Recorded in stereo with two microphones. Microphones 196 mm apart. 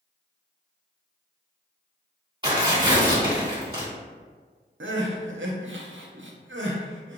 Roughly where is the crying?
Right.